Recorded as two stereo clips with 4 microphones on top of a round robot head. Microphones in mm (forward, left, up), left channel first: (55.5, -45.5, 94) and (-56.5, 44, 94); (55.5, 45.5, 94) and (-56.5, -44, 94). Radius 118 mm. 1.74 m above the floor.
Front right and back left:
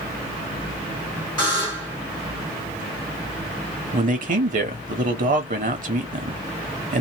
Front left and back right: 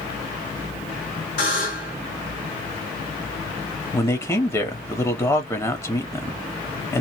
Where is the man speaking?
110° left, 0.8 m.